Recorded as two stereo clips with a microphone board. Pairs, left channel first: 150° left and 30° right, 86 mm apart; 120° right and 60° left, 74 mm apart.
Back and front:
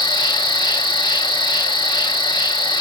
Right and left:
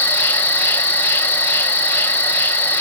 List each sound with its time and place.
0.0 s an insect: straight behind, 0.7 m